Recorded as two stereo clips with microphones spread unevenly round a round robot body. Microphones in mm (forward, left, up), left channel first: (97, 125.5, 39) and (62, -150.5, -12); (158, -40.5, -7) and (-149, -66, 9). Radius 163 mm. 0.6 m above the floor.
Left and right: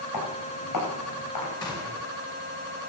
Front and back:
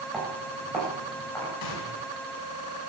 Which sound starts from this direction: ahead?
A gunshot, at 1.6 s.